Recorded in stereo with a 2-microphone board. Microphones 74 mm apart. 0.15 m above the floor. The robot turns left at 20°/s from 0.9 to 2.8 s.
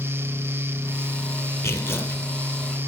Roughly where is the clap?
I don't hear a clap.